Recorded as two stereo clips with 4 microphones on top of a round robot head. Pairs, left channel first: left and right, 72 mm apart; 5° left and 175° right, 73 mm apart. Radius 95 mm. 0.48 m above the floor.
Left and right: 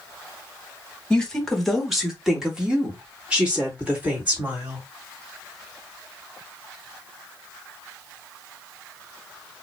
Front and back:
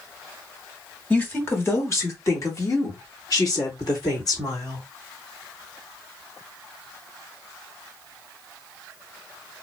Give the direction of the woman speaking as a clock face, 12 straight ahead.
11 o'clock.